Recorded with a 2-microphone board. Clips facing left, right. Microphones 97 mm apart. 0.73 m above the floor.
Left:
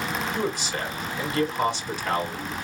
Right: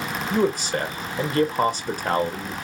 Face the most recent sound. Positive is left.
turn(degrees=-45)  # may be behind; listen again after turning